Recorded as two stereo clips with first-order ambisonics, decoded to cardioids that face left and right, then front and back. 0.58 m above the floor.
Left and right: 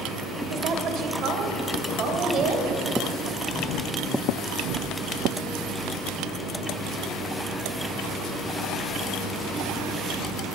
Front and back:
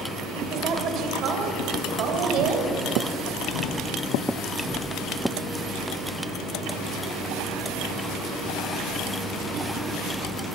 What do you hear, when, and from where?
0.5 s a woman speaking: 130° right, 3 m; by 2.7 s 145° right, 4 m